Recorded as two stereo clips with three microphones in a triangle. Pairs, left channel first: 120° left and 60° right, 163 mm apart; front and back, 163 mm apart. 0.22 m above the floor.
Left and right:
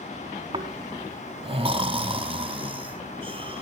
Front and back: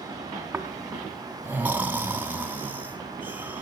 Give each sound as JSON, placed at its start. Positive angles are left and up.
{"t": 0.5, "sound": "snoring", "azimuth_deg": -105, "distance_m": 1.3}